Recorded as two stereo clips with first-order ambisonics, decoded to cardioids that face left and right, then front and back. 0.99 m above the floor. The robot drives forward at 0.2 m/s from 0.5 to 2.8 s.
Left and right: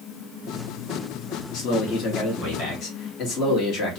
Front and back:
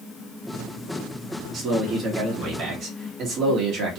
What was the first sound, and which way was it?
A man speaking, 125° left.